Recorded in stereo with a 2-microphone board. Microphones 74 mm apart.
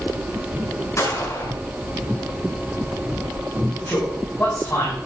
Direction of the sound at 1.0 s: 40° left (ahead or behind).